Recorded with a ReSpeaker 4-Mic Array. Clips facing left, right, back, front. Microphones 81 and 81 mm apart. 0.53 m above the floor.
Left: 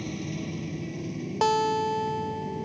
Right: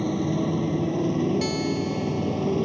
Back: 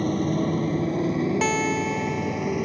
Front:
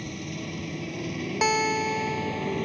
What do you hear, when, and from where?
0.0 s a motorcycle: 135° right; by 2.6 s 100° right
1.4 s a guitar: 85° left